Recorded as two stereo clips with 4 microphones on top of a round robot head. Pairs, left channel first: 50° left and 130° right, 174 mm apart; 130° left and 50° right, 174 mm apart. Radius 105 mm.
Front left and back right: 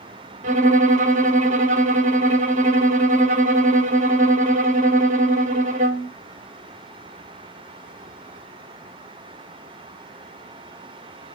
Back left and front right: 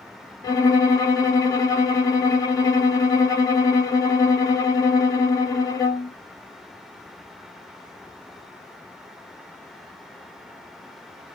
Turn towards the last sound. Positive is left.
turn(degrees=-165)